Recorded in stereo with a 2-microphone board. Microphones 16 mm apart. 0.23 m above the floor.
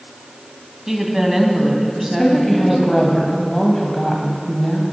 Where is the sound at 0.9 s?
25° right (ahead or behind), 1.5 m.